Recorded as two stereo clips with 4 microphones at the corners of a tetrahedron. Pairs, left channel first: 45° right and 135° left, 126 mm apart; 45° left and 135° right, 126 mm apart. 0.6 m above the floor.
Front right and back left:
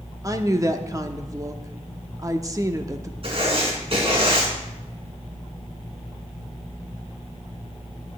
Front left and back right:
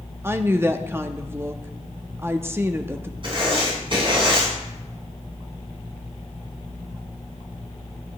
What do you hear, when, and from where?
0.2 s a woman speaking: 170° left, 0.7 m
3.2 s writing: straight behind, 4 m